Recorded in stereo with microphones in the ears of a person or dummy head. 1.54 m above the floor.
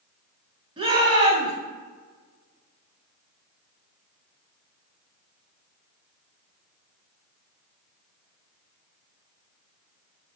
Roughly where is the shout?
Right.